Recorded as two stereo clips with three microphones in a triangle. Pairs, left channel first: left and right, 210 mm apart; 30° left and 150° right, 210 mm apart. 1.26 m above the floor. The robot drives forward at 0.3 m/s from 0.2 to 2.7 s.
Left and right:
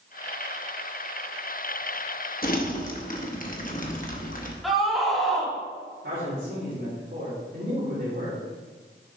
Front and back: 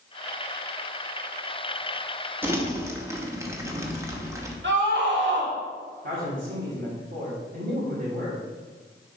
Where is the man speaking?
125° right, 2.5 m.